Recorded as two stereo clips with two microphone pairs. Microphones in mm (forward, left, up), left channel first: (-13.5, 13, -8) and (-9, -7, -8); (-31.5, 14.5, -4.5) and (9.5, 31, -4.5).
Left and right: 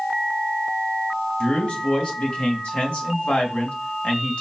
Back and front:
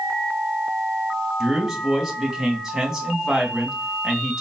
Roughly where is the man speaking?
Left.